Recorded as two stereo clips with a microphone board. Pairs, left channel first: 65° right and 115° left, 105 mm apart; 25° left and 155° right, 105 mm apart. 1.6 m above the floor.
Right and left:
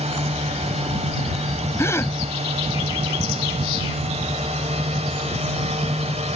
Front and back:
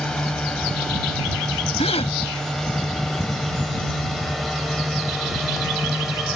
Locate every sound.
0.0 s a drone: 105° left; by 6.3 s 115° left
1.8 s a gasp: straight ahead